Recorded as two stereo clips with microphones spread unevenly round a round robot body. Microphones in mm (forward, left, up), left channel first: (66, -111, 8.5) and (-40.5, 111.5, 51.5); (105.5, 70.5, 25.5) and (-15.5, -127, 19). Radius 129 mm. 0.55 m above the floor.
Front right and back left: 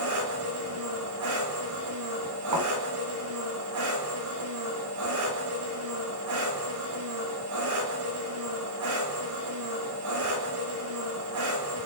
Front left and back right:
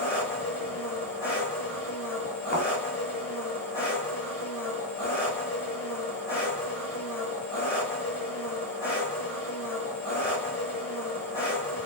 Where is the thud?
120° left, 4 m.